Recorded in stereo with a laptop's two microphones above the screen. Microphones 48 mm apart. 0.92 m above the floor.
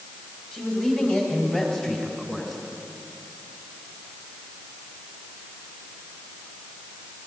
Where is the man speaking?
30° left (ahead or behind), 5.5 m; by 2.6 s 15° left (ahead or behind), 4 m.